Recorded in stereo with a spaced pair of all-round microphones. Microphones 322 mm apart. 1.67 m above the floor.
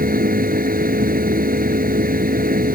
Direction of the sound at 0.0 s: 25° right (ahead or behind).